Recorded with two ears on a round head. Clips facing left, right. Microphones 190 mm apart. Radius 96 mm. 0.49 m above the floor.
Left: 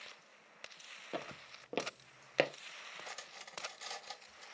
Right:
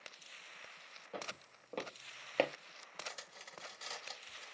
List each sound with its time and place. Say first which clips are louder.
1.1 s footsteps: left 3 dB; 60° left (ahead or behind), 0.9 m; by 2.5 s 10° left (ahead or behind), 0.5 m
3.1 s cutlery clinking: even; 5° right (ahead or behind), 0.5 m